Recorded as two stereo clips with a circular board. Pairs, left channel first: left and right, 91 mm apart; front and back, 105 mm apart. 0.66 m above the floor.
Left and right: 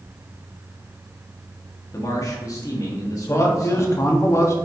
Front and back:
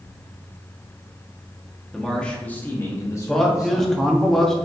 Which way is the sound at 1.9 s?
90° left.